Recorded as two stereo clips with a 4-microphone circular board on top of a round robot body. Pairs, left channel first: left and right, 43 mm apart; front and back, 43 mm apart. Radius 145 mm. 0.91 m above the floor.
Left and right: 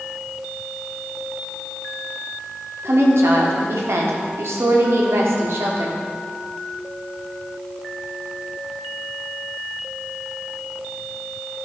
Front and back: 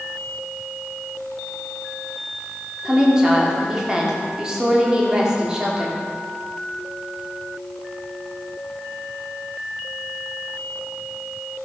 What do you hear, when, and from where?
2.9 s a woman speaking: 105° right, 3 m